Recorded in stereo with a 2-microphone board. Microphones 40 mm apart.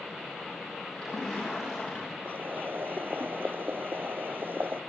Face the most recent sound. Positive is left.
turn(degrees=-70)  # may be behind; listen again after turning